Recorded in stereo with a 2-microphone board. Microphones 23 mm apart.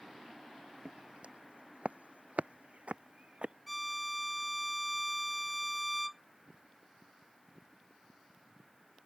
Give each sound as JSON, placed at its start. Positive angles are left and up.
{"t": 0.8, "sound": "footsteps", "side_deg": -45}
{"t": 3.7, "sound": "a violin", "side_deg": -5}